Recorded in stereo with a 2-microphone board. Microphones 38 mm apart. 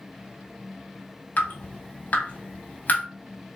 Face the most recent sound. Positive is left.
turn(degrees=45)  # may be behind; listen again after turning